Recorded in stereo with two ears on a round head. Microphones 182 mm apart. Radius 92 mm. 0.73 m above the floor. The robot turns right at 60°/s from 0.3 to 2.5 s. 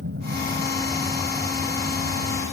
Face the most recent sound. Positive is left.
turn(degrees=65)  # may be behind; listen again after turning